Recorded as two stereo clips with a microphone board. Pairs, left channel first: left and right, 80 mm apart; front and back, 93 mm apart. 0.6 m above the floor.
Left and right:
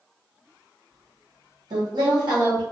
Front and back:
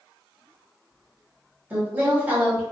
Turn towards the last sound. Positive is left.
turn(degrees=-110)